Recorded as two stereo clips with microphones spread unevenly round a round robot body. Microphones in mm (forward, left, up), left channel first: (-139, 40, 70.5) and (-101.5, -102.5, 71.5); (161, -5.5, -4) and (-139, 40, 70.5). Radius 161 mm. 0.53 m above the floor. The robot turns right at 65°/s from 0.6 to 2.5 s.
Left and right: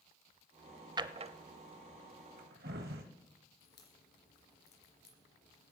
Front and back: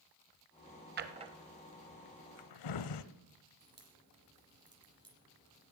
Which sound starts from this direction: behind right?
A drawer, at 1.0 s.